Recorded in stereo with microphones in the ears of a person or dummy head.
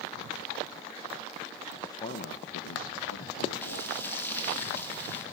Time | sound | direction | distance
1.8 | a man speaking | 5° left (ahead or behind) | 0.9 m
3.6 | frying | 15° left (ahead or behind) | 2.5 m